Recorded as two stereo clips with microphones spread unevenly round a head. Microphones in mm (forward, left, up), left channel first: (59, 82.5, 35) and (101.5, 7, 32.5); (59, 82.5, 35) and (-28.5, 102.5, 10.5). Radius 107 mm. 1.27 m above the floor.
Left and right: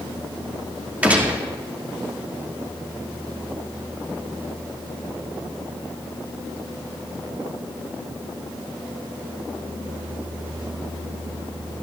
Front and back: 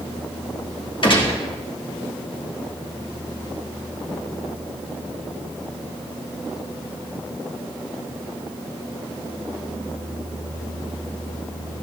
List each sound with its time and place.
1.0 s a gunshot: 15° left, 2.5 m